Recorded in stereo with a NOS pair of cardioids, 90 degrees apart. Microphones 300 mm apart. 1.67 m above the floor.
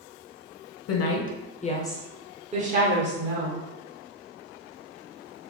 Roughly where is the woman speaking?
Ahead left.